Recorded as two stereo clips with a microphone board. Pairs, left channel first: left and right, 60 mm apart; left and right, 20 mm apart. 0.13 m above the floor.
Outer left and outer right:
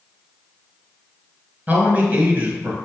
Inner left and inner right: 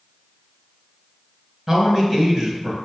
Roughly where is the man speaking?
Right.